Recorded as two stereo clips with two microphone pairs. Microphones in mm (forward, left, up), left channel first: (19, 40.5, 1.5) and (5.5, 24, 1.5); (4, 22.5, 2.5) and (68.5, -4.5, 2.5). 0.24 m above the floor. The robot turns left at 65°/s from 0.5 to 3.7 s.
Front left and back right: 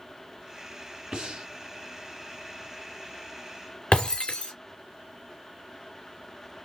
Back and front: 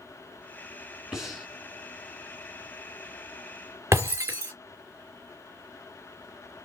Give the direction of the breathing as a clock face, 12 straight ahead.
3 o'clock.